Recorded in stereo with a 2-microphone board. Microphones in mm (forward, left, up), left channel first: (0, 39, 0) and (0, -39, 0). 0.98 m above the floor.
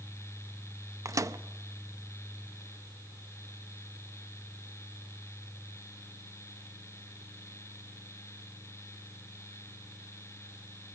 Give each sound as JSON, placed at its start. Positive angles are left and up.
{"t": 1.1, "sound": "a microwave", "side_deg": -45, "distance_m": 0.5}